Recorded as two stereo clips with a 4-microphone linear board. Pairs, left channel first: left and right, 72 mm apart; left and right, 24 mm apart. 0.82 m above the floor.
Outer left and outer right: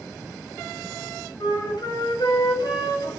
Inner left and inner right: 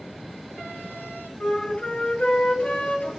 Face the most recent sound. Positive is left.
turn(degrees=80)